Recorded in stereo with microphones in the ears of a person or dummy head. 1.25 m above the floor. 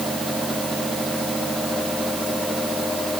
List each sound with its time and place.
Only background noise.